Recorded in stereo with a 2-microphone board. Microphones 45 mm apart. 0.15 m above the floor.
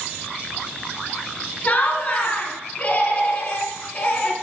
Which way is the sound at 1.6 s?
35° left (ahead or behind).